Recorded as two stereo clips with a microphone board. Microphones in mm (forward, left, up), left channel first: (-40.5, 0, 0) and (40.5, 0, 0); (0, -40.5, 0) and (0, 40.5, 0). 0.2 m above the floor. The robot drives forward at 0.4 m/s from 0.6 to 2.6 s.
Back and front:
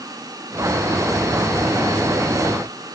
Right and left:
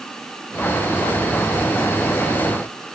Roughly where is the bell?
No bell in this recording.